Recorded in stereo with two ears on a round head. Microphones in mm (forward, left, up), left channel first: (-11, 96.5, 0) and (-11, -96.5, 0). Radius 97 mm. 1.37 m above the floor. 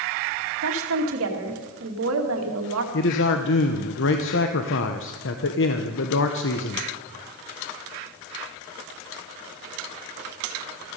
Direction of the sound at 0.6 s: 75° right (ahead or behind).